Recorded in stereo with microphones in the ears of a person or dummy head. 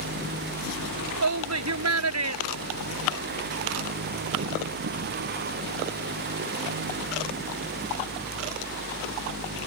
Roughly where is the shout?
Right.